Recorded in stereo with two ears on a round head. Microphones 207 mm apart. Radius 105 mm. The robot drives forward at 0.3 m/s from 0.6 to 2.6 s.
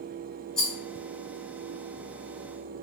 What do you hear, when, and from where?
0.6 s a rattle: centre (ahead or behind), 1.1 m